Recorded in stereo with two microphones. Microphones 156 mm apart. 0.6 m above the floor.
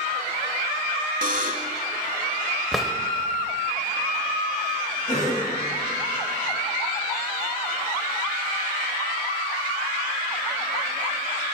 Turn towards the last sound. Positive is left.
turn(degrees=50)  # may be behind; listen again after turning